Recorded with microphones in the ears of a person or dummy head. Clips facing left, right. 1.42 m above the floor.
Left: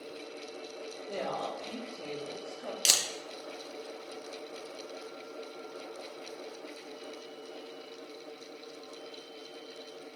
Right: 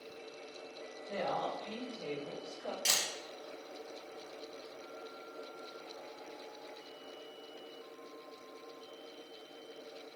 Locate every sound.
1.1 s a woman speaking: 45° left (ahead or behind), 1.0 m
2.9 s a camera shutter: 50° left (ahead or behind), 0.6 m